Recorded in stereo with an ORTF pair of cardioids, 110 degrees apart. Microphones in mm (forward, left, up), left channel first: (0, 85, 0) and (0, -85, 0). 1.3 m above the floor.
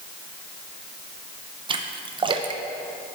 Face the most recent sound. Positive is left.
turn(degrees=-30)